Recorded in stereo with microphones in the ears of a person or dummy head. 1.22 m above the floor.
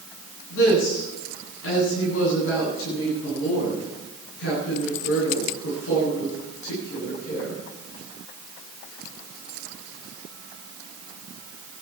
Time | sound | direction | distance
0.5 | a woman speaking | 90° left | 9 m